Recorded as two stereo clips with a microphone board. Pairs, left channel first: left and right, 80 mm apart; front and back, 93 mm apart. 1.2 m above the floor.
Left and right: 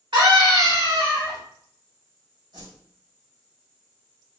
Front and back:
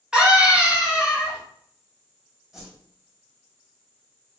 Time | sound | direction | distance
0.1 | a scream | 100° right | 1.8 m
2.5 | a whoosh | 95° right | 2 m